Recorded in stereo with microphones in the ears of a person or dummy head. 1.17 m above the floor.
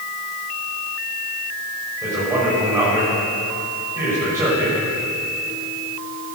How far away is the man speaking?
About 6.5 m.